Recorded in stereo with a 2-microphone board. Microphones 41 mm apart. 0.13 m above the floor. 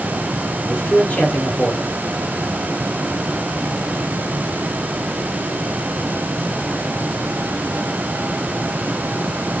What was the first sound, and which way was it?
A man speaking, 30° left (ahead or behind).